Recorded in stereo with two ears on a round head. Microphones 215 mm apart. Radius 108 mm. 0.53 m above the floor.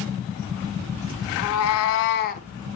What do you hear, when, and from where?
1.4 s a cat meowing: 55° left (ahead or behind), 0.9 m; by 2.5 s 30° left (ahead or behind), 0.9 m